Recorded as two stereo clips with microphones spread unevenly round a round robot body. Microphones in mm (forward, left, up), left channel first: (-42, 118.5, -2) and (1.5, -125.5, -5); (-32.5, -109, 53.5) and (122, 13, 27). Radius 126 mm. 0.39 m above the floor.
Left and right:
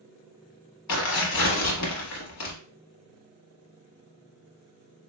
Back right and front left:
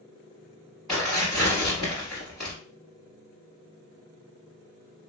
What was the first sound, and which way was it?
Tearing paper, 130° left.